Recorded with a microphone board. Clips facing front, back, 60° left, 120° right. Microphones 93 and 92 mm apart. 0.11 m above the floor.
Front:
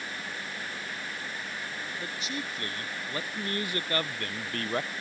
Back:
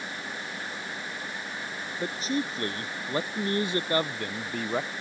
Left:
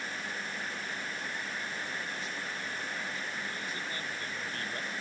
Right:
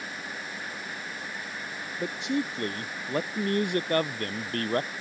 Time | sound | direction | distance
2.0 | a man speaking | 130° right | ?